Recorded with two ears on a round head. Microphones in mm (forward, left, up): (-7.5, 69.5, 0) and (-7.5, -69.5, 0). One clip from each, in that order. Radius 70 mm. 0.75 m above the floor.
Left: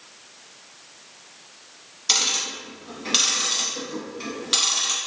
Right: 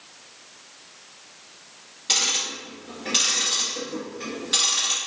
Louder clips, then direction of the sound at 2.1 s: Left 1 dB; 50° left (ahead or behind).